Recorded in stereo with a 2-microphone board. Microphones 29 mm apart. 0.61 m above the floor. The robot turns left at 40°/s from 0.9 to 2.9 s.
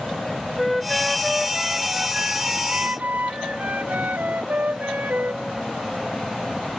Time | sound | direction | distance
0.6 | a flute | 5° left | ?